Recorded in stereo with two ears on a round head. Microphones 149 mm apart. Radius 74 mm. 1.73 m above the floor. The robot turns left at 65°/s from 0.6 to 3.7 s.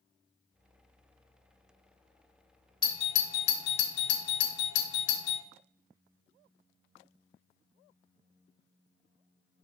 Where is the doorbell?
30° left (ahead or behind), 1.3 m; by 5.4 s 75° left (ahead or behind), 1.3 m.